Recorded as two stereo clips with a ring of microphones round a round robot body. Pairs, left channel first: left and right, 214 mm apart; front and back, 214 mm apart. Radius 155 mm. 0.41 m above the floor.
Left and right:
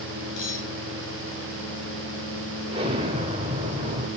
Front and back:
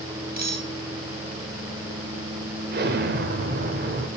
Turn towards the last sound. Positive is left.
turn(degrees=-150)